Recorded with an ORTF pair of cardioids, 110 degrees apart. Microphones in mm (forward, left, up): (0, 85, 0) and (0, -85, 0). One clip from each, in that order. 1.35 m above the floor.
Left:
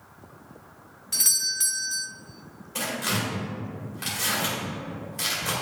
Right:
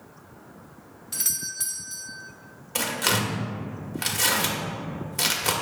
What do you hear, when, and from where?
1.1 s a doorbell: 15° left, 0.7 m
2.8 s tearing paper: 45° right, 1.5 m